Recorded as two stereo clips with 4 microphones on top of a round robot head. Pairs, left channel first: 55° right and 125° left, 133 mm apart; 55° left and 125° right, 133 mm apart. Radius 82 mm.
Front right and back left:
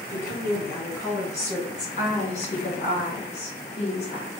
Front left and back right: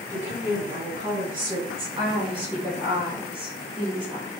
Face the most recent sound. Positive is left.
turn(degrees=-80)